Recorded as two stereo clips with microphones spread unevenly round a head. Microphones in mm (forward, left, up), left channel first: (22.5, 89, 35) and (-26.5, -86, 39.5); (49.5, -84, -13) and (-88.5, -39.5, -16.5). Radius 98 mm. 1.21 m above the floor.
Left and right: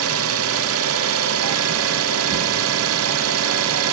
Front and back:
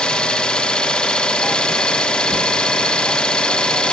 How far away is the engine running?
About 0.8 m.